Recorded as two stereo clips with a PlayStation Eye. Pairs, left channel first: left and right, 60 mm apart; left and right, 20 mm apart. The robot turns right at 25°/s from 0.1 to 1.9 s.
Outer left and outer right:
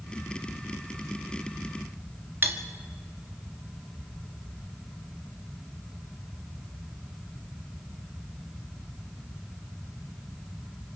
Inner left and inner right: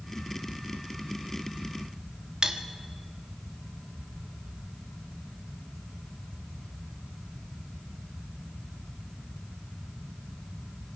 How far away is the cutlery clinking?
About 1.5 m.